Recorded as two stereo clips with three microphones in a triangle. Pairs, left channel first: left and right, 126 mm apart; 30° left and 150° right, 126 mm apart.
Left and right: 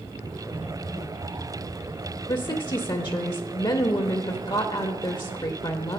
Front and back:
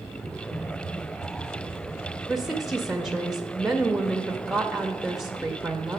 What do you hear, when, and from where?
0.2 s typing on a keyboard: 60° left, 1.3 m
2.3 s a woman speaking: 125° left, 0.6 m